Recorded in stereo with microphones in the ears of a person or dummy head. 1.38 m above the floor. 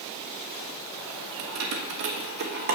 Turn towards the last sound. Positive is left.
turn(degrees=-45)  # may be behind; listen again after turning